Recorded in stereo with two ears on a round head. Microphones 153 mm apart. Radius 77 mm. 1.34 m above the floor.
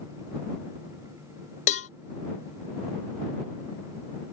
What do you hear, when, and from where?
1.7 s a cowbell: 45° left (ahead or behind)